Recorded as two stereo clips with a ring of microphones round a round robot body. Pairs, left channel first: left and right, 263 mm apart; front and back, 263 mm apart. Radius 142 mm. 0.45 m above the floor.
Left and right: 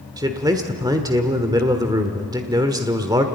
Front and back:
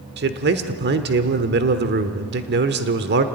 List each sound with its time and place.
0.2 s a man speaking: 160° right, 1.2 m